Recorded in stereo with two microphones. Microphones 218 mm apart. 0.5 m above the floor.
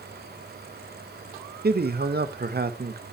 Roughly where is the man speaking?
Right.